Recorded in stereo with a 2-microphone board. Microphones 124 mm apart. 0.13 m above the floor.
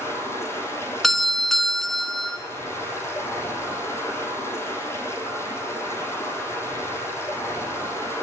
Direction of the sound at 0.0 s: 20° left (ahead or behind).